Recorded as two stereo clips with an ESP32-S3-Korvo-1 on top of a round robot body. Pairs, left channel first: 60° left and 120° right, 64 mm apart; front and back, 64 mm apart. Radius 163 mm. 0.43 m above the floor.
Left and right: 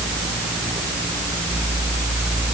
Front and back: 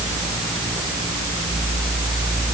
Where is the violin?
I don't hear a violin.